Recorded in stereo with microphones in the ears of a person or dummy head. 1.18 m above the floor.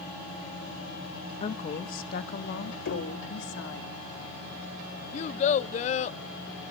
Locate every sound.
1.4 s a woman speaking: 25° left (ahead or behind), 1.2 m; by 3.9 s 60° left (ahead or behind), 2.5 m
2.9 s knocking: 45° left (ahead or behind), 3 m
5.1 s a child speaking: 45° left (ahead or behind), 0.6 m